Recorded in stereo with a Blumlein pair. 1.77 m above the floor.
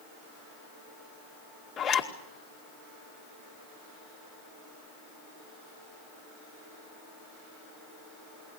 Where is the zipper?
25° left, 2 m.